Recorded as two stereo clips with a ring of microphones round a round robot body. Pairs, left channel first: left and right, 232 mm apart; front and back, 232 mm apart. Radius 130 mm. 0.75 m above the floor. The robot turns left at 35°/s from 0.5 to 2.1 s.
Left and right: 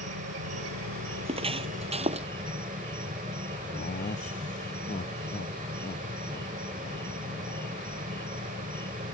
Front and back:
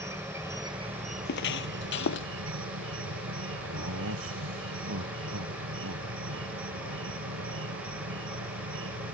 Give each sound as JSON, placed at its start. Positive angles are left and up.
{"t": 0.0, "sound": "an insect", "azimuth_deg": -105}
{"t": 1.2, "sound": "footsteps", "azimuth_deg": -30}
{"t": 3.7, "sound": "laughter", "azimuth_deg": 150}